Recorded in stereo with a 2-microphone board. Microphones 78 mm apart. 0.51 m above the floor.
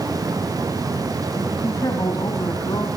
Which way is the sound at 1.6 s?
45° left (ahead or behind).